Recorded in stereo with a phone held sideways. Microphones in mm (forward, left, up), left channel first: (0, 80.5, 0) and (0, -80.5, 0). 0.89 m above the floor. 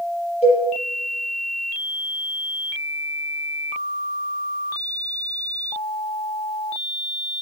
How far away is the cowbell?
About 6.5 m.